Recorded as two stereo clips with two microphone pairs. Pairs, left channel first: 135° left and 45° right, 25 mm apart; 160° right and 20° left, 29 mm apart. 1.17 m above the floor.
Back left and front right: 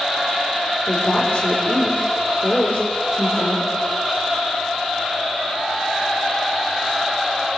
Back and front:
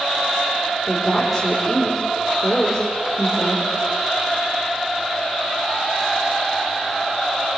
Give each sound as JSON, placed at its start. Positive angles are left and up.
{"t": 0.9, "sound": "a woman speaking", "azimuth_deg": 115, "distance_m": 3.5}